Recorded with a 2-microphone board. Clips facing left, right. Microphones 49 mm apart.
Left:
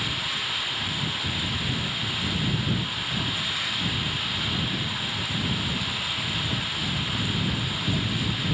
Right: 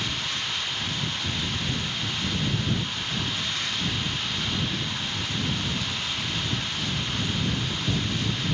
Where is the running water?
5° left (ahead or behind).